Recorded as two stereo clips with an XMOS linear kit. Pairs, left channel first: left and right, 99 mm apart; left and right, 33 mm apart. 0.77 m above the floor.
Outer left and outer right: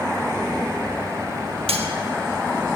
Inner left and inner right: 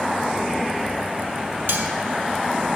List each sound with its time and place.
1.7 s cutlery clinking: 80° right, 0.7 m